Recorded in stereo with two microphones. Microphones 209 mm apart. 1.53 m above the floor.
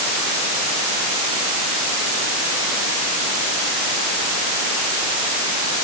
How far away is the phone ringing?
No phone ringing in this recording.